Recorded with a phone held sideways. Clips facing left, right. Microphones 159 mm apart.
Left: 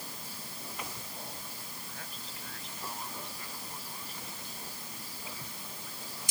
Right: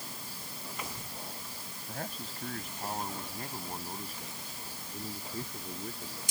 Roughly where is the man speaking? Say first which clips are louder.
Right 7 dB; right.